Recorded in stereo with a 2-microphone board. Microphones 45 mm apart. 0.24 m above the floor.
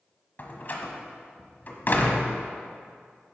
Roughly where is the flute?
No flute in this recording.